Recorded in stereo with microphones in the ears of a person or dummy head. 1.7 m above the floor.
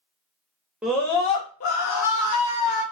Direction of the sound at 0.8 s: 5° right (ahead or behind).